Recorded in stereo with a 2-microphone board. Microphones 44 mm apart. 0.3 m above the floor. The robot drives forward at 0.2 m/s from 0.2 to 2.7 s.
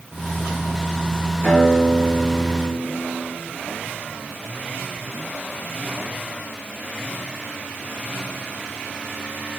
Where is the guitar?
50° left (ahead or behind), 2 m; by 3.3 s 45° left (ahead or behind), 2.5 m.